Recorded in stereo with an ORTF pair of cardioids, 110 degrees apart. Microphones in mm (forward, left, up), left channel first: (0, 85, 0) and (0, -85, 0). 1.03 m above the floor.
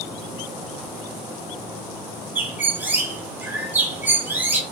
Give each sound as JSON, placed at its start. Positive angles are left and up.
{"t": 2.4, "sound": "a bird", "azimuth_deg": -10, "distance_m": 0.7}